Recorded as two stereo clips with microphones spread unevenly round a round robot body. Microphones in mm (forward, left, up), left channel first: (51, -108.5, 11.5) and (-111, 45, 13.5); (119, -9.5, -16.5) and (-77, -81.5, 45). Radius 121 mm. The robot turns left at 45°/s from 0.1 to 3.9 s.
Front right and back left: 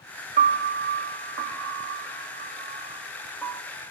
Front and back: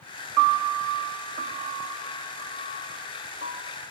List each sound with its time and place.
0.4 s a piano: straight behind, 1.9 m; by 3.6 s 35° left, 1.9 m